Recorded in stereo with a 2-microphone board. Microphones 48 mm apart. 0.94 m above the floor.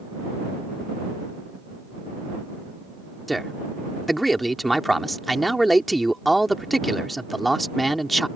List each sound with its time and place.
3.3 s a man speaking: centre (ahead or behind)